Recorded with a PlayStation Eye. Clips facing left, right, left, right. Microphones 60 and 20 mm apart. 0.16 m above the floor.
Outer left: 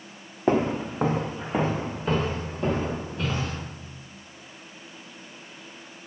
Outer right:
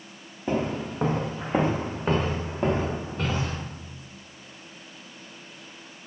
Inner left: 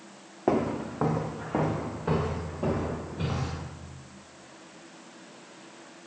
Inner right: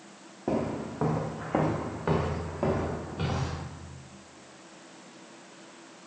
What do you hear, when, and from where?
0.5 s footsteps: 55° left (ahead or behind), 0.6 m; by 3.6 s 40° right (ahead or behind), 2.5 m